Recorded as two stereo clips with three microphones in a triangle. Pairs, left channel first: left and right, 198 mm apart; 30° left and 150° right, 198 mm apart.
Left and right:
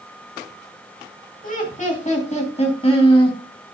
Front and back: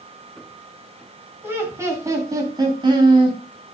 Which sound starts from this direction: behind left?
Laughter, at 1.4 s.